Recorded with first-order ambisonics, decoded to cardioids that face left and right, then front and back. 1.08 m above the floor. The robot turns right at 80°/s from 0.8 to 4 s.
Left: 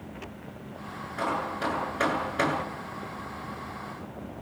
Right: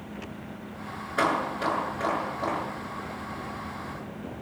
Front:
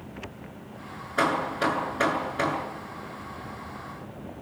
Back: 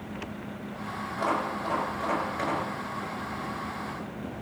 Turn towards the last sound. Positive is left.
turn(degrees=-165)